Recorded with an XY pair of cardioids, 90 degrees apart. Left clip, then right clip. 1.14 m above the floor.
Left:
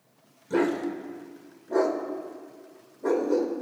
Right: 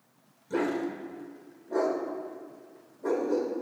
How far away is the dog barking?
About 1.9 m.